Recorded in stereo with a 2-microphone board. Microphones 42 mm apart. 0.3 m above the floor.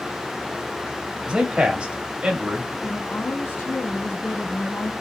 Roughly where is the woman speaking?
Left.